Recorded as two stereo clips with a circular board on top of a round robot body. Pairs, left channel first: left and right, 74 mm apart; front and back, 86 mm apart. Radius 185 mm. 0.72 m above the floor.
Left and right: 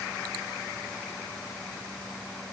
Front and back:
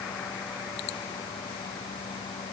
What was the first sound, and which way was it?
Only background noise.